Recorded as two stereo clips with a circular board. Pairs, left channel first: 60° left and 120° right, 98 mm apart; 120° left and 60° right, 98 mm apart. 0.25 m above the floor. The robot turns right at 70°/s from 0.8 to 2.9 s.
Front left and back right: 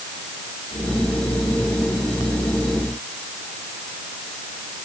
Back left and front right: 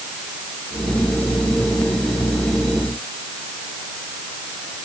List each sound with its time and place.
Only background noise.